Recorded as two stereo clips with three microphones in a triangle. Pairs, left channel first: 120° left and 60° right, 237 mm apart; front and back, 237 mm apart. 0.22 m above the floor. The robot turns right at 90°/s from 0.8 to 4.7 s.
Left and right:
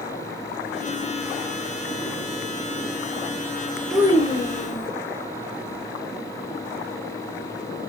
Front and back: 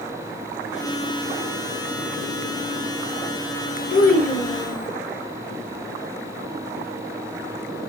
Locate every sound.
3.9 s a child speaking: 30° left, 1.8 m; by 4.9 s 100° left, 1.8 m